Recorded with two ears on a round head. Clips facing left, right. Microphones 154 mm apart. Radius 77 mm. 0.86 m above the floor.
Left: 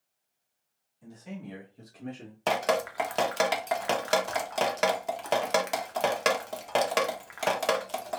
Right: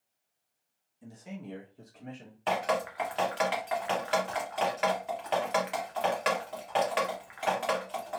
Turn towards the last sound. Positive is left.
turn(degrees=50)  # may be behind; listen again after turning